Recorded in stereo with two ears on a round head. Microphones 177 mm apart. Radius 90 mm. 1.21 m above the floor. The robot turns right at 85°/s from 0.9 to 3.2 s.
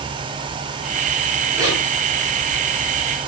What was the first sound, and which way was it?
A zipper, 15° right (ahead or behind).